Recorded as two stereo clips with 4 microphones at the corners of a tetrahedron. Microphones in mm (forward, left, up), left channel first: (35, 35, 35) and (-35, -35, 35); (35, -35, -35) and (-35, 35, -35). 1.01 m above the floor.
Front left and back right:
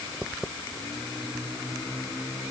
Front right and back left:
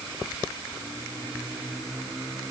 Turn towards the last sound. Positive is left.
No sound to turn to.